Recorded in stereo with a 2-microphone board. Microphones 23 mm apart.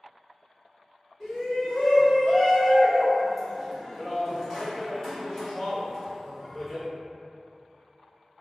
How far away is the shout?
About 1.4 m.